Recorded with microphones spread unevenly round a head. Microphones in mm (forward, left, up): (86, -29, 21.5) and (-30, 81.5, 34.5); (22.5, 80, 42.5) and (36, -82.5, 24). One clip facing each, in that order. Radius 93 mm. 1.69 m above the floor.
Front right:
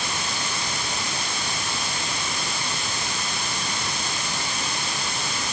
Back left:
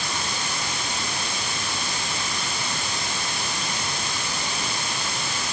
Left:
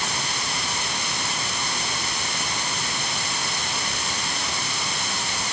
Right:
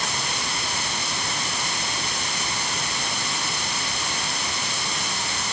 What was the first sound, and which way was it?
Only background noise.